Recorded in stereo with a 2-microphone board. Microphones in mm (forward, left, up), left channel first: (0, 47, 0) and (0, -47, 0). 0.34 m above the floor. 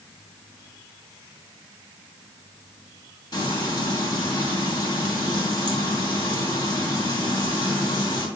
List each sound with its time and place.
3.3 s frying: 60° left (ahead or behind), 2.5 m